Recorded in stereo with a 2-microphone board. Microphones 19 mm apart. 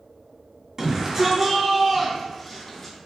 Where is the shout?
30° right (ahead or behind), 1.6 m; by 3.0 s 10° left (ahead or behind), 1.8 m.